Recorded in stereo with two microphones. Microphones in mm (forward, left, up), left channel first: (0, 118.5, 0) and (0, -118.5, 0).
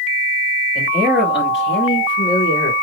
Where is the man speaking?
40° left (ahead or behind), 3.5 m; by 2.7 s 65° left (ahead or behind), 4 m.